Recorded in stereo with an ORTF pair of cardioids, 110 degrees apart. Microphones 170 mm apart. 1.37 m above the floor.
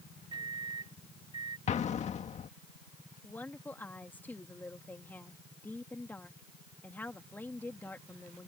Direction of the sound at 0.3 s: 30° right.